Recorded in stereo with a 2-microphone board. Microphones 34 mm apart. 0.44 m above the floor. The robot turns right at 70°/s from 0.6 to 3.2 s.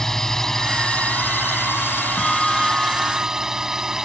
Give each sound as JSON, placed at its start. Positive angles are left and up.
{"t": 0.0, "sound": "a drone", "azimuth_deg": 15}
{"t": 2.2, "sound": "a bell", "azimuth_deg": 160}